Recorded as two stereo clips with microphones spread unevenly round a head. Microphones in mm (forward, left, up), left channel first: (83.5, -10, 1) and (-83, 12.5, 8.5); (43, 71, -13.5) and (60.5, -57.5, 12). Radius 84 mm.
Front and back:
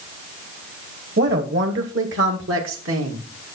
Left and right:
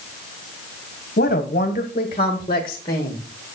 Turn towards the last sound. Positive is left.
turn(degrees=170)